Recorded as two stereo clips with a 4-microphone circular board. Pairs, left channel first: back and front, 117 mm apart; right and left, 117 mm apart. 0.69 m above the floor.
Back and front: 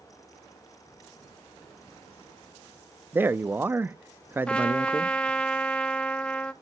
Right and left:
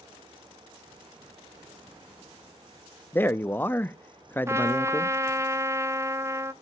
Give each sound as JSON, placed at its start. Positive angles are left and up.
{"t": 3.1, "sound": "a man speaking", "azimuth_deg": -45, "distance_m": 0.5}
{"t": 4.5, "sound": "a trumpet", "azimuth_deg": 110, "distance_m": 0.7}